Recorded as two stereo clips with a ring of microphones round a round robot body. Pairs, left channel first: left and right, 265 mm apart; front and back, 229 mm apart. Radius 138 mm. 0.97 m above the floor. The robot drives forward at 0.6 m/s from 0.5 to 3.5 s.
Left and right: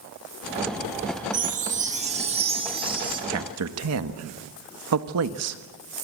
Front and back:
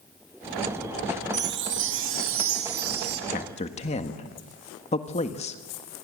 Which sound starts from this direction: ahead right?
A man speaking, at 3.3 s.